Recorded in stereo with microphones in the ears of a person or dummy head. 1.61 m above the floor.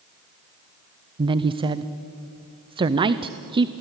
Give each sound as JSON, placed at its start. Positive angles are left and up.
{"t": 1.2, "sound": "a woman speaking", "side_deg": -25, "distance_m": 0.6}